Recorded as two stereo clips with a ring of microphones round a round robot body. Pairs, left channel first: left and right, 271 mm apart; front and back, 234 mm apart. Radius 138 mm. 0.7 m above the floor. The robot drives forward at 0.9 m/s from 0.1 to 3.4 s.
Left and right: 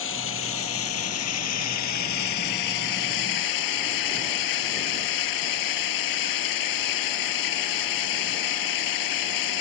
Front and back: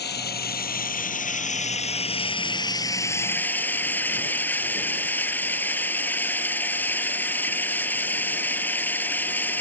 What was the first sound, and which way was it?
Running water, 45° left.